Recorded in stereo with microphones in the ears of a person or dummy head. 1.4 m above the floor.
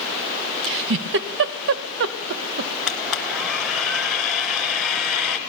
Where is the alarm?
I don't hear an alarm.